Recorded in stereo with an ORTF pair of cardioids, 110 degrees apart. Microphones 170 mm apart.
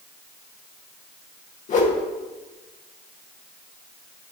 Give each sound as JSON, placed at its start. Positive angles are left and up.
{"t": 1.7, "sound": "a whoosh", "azimuth_deg": 45, "distance_m": 2.0}